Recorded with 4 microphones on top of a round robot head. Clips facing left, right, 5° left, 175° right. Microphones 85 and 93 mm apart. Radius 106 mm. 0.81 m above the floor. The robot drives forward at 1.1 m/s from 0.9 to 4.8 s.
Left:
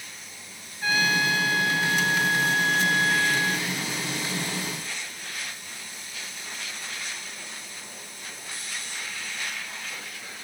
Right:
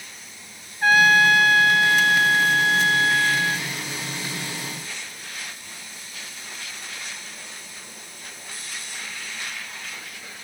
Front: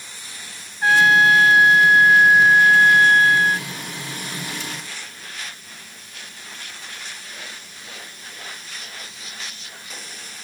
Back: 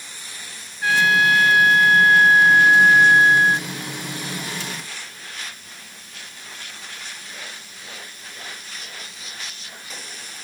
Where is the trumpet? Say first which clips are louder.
Right 9 dB, front 3 dB; 55° right; by 3.7 s 105° right.